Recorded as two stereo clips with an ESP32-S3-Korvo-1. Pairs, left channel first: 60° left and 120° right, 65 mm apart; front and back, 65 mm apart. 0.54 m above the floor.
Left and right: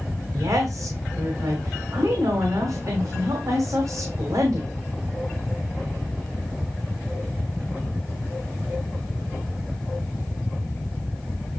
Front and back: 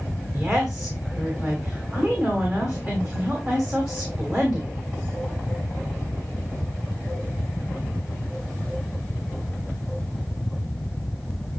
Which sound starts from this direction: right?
A woman speaking, at 0.3 s.